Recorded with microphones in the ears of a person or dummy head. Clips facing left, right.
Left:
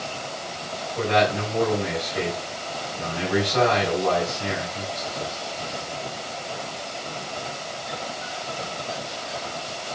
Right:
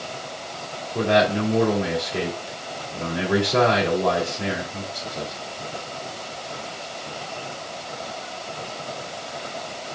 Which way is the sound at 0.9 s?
85° right.